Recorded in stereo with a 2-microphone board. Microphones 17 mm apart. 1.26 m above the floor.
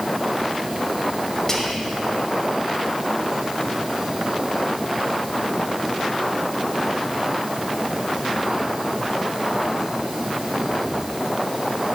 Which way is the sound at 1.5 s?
25° left (ahead or behind).